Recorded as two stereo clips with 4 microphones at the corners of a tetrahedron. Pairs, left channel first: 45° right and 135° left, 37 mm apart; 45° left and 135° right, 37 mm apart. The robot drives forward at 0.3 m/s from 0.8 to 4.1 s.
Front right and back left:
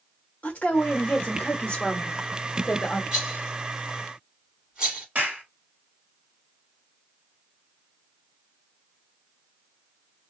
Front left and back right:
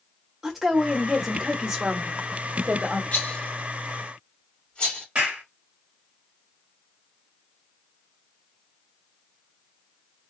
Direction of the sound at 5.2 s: 175° left.